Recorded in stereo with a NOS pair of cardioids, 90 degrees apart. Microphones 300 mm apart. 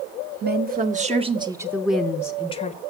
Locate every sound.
0.4 s a woman speaking: 35° right, 1.5 m; by 2.8 s 25° left, 1.1 m